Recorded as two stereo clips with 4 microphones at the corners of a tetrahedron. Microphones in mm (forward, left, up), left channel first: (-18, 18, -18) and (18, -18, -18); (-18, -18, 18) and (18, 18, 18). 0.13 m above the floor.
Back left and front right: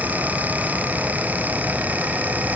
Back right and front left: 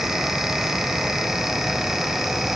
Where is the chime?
No chime in this recording.